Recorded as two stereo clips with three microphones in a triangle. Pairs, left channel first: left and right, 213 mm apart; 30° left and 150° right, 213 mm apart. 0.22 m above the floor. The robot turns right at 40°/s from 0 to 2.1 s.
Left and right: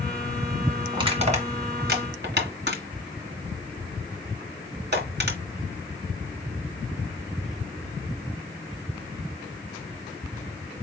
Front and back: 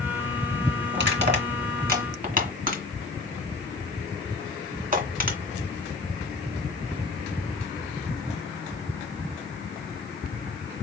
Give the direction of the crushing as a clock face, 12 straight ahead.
5 o'clock.